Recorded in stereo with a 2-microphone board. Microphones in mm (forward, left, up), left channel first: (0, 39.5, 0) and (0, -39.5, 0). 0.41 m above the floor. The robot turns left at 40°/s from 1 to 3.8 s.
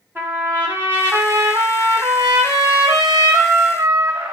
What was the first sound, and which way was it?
A trumpet, 30° right.